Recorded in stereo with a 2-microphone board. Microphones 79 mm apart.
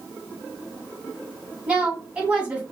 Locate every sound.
1.7 s a woman speaking: 15° right (ahead or behind), 1.3 m